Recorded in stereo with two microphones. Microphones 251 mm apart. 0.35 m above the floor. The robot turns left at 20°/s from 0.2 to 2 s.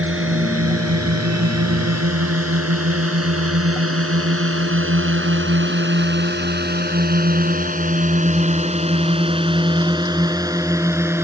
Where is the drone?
55° right (ahead or behind); by 11.2 s 10° right (ahead or behind).